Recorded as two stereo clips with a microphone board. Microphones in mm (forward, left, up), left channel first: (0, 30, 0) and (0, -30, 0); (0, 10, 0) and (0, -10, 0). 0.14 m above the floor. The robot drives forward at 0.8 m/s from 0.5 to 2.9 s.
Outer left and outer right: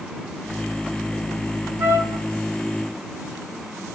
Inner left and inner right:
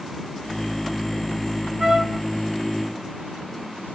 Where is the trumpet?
40° right (ahead or behind), 1.1 m; by 2.2 s 30° right (ahead or behind), 1.4 m.